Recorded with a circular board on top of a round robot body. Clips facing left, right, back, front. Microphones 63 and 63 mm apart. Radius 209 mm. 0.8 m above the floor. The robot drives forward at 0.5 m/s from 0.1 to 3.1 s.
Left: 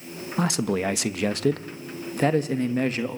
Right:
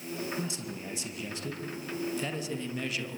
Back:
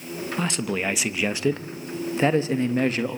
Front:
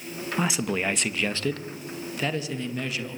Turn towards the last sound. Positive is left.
turn(degrees=135)